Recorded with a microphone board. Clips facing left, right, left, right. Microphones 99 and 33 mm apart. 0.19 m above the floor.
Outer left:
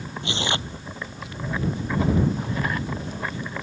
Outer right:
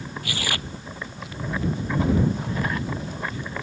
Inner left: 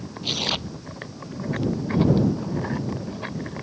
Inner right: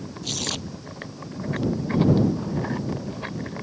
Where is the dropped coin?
No dropped coin in this recording.